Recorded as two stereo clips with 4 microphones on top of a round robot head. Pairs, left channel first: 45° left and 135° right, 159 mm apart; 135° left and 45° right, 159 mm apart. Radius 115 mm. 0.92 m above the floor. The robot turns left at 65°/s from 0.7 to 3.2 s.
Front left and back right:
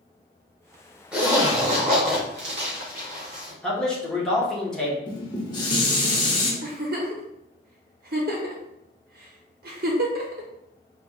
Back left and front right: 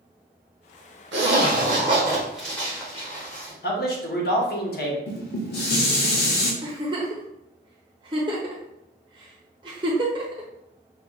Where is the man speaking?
130° left, 1.3 m.